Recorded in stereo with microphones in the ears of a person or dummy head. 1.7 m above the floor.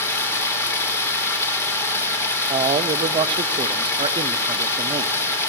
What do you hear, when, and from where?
0.0 s running water: 20° left (ahead or behind), 3.5 m
2.5 s a man speaking: 25° right (ahead or behind), 0.6 m